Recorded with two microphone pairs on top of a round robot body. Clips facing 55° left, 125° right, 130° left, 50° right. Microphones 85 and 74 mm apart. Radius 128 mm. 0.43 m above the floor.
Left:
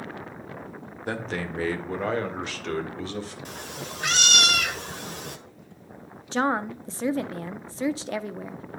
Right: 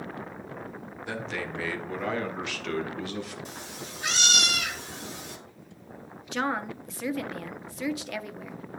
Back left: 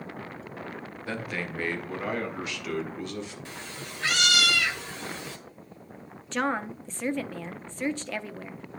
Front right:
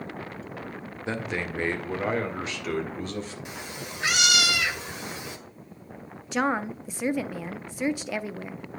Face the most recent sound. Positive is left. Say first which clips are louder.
# left 5 dB, front right 2 dB
turn(degrees=40)